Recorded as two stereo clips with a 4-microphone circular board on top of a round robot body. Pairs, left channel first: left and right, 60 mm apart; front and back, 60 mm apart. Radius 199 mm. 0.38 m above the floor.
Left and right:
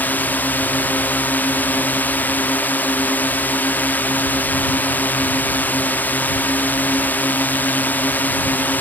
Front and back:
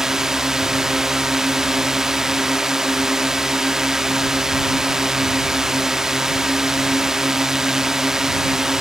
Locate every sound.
0.0 s a drone: 105° left